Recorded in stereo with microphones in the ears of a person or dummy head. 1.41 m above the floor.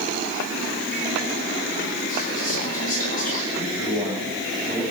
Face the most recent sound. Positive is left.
turn(degrees=5)  # may be behind; listen again after turning